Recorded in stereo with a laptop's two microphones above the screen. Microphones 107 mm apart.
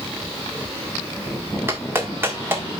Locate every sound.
1.7 s a clap: 25° right (ahead or behind), 1.4 m